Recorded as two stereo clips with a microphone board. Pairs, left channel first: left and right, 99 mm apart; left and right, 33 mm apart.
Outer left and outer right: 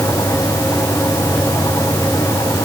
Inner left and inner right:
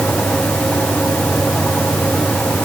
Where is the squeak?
I don't hear a squeak.